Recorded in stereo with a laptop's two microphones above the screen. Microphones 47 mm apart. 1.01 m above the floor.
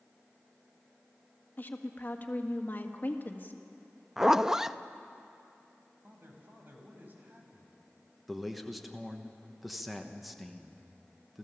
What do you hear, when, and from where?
1.6 s a woman speaking: 40° left (ahead or behind), 1.7 m
4.2 s a zipper: 10° right (ahead or behind), 0.5 m
6.0 s a man speaking: 40° right (ahead or behind), 5 m
8.3 s a man speaking: centre (ahead or behind), 1.1 m